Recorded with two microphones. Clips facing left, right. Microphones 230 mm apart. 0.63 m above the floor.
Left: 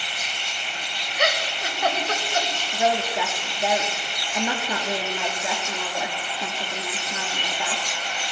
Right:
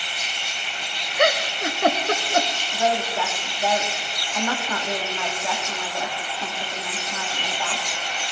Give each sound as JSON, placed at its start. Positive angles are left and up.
{"t": 1.2, "sound": "a giggle", "side_deg": -55, "distance_m": 0.6}
{"t": 2.7, "sound": "a woman speaking", "side_deg": 15, "distance_m": 1.2}